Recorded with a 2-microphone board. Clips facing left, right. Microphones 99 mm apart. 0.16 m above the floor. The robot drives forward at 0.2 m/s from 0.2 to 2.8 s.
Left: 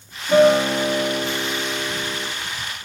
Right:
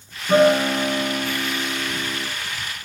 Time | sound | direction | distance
0.3 | a guitar | 35° right (ahead or behind) | 1.9 m